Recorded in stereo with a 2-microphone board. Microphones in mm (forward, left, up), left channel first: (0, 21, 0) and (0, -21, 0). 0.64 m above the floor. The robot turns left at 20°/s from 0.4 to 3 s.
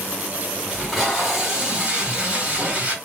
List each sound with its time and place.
0.7 s tape being pulled: straight ahead, 1.3 m; by 3.0 s 45° right, 1.3 m